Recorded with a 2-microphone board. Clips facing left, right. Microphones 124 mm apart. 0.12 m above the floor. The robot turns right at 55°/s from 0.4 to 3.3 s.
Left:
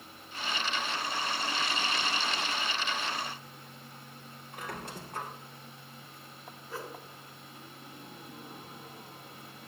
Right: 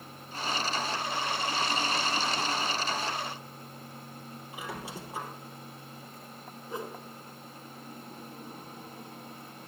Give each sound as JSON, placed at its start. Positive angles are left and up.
{"t": 4.5, "sound": "a squeak", "side_deg": -5, "distance_m": 2.0}
{"t": 6.7, "sound": "a whoosh", "side_deg": -20, "distance_m": 1.5}